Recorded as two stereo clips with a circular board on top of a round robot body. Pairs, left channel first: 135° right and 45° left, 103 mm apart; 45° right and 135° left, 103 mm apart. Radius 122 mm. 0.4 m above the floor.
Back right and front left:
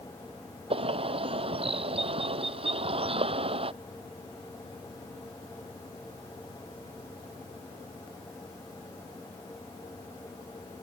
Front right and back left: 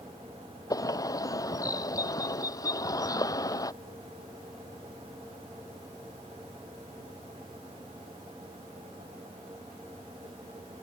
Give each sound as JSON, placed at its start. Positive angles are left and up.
{"t": 0.7, "sound": "a bird", "azimuth_deg": 15}